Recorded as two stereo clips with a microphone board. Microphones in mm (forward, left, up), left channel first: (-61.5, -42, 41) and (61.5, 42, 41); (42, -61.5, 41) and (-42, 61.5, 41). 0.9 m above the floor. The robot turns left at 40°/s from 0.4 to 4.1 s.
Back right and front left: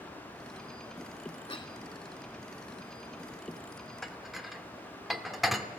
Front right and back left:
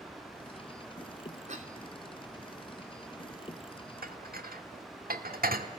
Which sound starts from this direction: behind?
A cough, at 1.5 s.